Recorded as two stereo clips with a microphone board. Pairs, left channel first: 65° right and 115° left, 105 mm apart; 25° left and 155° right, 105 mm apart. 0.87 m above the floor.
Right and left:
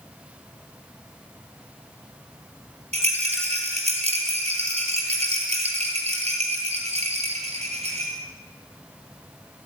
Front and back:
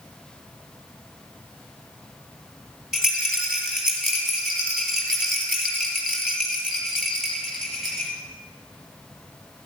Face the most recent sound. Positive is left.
turn(degrees=115)